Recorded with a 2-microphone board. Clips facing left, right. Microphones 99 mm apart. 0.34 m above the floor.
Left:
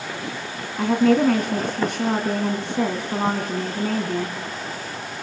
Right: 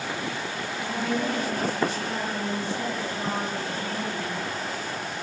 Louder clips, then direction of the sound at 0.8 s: Left 12 dB; 65° left (ahead or behind).